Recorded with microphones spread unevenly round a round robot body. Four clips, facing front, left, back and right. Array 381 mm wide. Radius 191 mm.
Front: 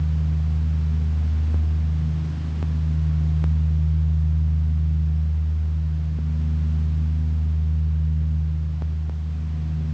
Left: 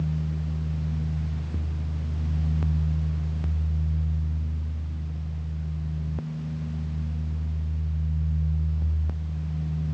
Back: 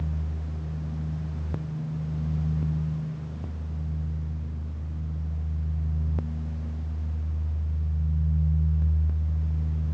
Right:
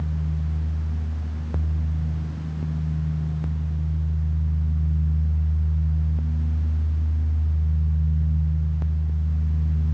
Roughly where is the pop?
No pop in this recording.